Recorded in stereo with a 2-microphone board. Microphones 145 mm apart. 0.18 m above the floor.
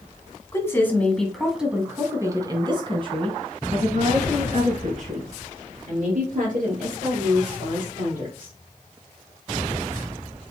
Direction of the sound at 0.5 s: 20° left (ahead or behind).